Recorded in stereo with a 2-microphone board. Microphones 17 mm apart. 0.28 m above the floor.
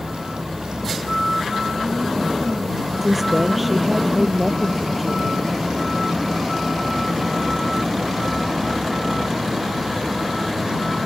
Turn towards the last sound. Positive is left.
turn(degrees=-5)  # may be behind; listen again after turning